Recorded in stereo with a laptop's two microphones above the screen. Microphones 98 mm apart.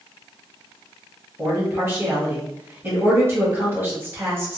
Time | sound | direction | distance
1.4 | a man speaking | 25° right (ahead or behind) | 1.2 m